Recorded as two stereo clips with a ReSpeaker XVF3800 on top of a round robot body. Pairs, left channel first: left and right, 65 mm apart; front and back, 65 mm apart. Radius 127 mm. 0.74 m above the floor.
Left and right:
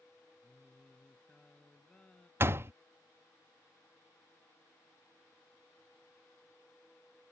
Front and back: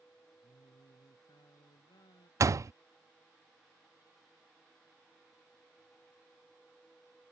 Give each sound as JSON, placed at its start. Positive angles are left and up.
{"t": 0.4, "sound": "singing", "azimuth_deg": 15}
{"t": 2.4, "sound": "a door slam", "azimuth_deg": -145}